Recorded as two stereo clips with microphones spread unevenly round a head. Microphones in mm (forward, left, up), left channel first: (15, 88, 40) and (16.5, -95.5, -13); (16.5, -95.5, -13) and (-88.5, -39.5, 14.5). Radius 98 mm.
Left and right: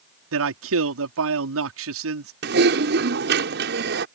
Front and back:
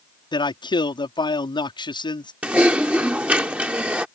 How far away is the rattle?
No rattle in this recording.